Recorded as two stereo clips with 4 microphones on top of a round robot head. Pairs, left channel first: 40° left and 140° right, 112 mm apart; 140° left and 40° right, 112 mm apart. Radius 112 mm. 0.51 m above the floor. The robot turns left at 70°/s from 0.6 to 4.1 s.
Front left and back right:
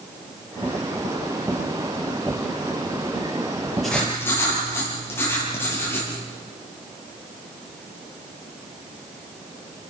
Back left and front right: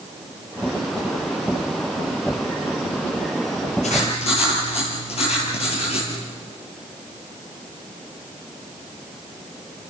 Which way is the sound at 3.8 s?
130° left.